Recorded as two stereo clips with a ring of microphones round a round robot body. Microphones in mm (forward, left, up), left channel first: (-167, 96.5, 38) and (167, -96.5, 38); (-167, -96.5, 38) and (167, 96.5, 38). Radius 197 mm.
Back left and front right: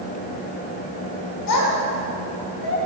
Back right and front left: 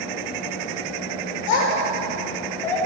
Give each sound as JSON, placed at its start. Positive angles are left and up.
{"t": 1.5, "sound": "a child speaking", "azimuth_deg": -170, "distance_m": 3.5}